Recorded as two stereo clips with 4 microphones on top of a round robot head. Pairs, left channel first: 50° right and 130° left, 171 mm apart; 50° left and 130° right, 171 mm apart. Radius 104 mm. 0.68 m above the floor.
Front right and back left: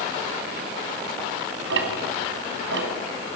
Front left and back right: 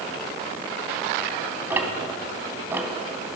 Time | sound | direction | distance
1.7 | ticking | 150° left | 2.5 m